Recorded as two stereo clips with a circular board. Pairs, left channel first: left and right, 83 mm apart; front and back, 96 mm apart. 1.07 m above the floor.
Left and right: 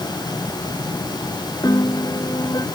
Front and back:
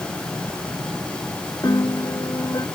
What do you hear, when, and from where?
1.6 s a piano: 50° left